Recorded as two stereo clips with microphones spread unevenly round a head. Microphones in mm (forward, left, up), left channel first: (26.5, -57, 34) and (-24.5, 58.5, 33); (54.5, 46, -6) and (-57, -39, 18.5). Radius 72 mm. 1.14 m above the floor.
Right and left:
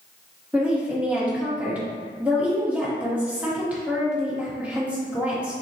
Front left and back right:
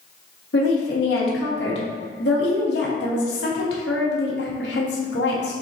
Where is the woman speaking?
35° left, 1.3 m.